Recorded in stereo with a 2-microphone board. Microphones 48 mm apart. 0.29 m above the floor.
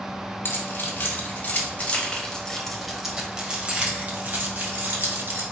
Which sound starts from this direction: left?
Keys jangling, at 0.5 s.